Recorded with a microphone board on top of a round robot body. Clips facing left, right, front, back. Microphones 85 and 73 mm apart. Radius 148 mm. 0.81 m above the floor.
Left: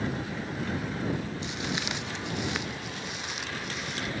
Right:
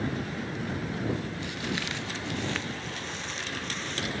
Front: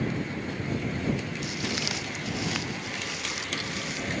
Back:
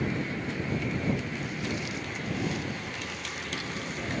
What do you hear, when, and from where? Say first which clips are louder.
1.4 s footsteps: even, front 1 dB; 20° left; by 4.1 s 10° left